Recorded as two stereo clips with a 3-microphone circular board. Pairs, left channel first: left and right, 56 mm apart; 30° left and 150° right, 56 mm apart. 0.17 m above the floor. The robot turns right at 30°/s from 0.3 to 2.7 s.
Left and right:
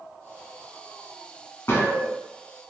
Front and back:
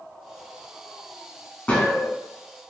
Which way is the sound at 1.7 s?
85° left.